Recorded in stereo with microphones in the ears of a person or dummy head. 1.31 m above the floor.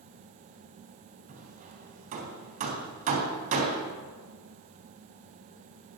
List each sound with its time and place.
1.3 s hammering: 40° right (ahead or behind), 3 m